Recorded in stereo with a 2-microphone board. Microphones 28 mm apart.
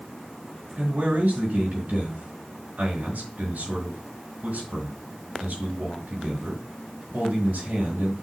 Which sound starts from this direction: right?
A man speaking, at 0.8 s.